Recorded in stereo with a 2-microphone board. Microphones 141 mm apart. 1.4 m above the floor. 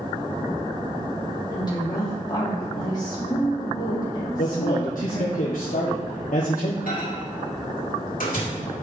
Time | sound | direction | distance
1.5 | a woman speaking | 30° left (ahead or behind) | 2.0 m
4.4 | a man speaking | 75° left (ahead or behind) | 0.9 m
6.9 | a microwave | 80° left | 2.5 m